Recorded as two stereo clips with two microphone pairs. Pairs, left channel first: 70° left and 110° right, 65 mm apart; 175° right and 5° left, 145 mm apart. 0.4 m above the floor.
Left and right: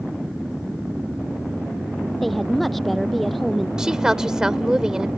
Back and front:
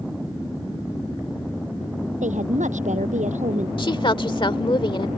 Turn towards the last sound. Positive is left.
turn(degrees=180)